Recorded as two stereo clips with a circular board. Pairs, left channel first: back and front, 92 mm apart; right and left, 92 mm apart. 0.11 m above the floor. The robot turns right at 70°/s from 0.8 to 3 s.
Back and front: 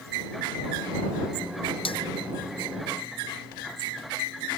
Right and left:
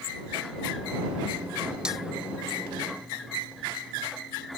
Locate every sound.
1.9 s a snare drum: 170° left; by 2.0 s straight behind